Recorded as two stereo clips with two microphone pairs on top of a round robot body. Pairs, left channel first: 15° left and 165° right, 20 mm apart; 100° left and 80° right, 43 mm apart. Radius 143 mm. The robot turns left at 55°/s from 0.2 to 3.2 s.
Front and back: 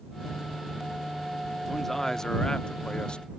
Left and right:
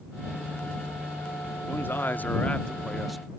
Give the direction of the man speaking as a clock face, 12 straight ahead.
9 o'clock.